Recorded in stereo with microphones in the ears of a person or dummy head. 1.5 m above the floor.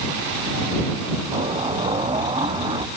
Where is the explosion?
25° right (ahead or behind).